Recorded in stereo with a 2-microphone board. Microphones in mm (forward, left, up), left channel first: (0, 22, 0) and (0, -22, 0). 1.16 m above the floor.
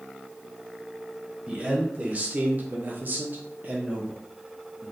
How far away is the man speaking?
About 1.1 m.